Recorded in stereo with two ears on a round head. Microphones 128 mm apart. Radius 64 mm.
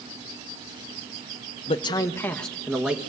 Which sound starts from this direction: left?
A man speaking, at 1.7 s.